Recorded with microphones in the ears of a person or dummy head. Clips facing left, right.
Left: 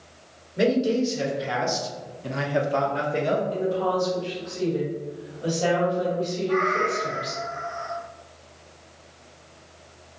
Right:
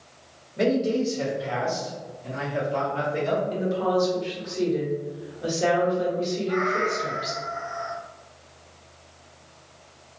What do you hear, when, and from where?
0.6 s a man speaking: 15° left (ahead or behind), 1.2 m; by 3.4 s 45° left (ahead or behind), 0.7 m
3.5 s a woman speaking: 30° right (ahead or behind), 1.2 m
6.5 s a cat meowing: 25° right (ahead or behind), 1.1 m